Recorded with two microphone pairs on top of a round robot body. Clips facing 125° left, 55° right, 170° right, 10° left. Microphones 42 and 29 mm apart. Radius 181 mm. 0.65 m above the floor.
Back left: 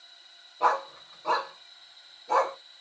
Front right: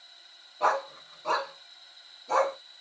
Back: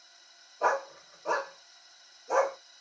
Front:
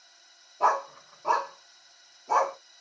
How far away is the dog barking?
About 2 m.